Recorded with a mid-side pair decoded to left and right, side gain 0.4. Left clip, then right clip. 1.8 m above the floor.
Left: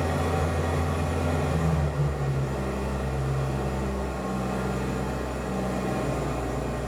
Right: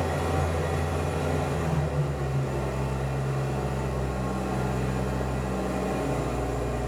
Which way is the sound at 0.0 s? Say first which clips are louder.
Left 1 dB; straight ahead.